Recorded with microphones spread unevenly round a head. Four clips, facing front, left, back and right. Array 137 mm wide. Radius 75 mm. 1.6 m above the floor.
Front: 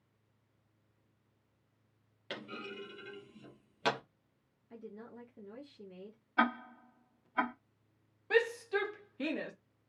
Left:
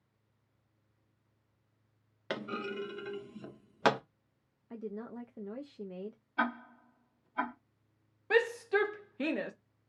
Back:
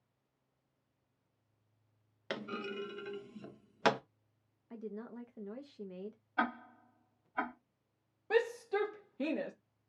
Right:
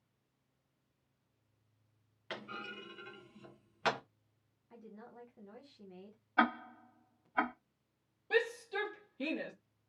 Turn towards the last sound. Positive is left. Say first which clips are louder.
# left 5 dB, front 1 dB
turn(degrees=135)